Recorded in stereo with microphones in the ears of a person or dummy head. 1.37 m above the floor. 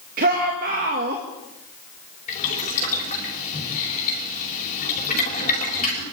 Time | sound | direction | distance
0.2 | a shout | 50° right (ahead or behind) | 2 m
2.3 | boiling | 35° left (ahead or behind) | 6 m